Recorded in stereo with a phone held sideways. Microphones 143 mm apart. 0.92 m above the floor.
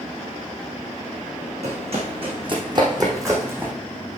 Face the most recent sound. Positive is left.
turn(degrees=-15)  # may be behind; listen again after turning